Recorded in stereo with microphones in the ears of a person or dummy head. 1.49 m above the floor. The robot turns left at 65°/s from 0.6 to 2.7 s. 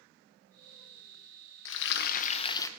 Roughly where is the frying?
Left.